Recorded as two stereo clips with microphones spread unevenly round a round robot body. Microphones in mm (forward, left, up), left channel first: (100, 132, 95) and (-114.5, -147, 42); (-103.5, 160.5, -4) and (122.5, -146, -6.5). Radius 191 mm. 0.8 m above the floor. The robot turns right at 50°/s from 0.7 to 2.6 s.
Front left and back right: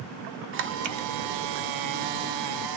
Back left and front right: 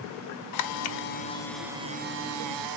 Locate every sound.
0.5 s a camera shutter: 170° left, 0.5 m; by 2.8 s 95° right, 0.5 m